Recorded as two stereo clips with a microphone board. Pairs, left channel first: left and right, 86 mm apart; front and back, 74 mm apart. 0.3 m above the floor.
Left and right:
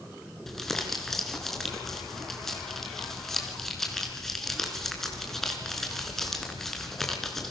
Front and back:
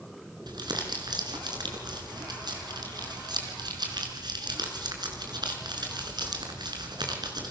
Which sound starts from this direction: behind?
Crumpling, at 0.5 s.